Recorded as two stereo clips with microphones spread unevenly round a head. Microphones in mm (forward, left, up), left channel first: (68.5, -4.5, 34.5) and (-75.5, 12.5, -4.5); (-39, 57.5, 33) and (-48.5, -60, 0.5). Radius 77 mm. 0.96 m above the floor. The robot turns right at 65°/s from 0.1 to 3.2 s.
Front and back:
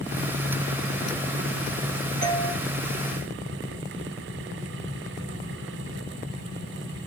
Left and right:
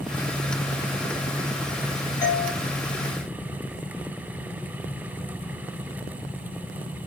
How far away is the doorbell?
About 4 m.